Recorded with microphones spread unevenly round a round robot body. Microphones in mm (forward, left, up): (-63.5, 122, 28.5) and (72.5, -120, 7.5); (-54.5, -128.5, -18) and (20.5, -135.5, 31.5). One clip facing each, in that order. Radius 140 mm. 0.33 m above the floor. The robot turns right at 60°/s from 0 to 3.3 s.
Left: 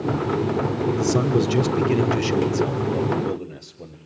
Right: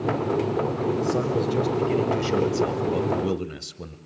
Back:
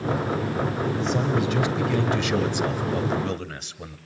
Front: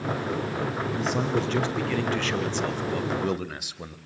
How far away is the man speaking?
About 1.5 m.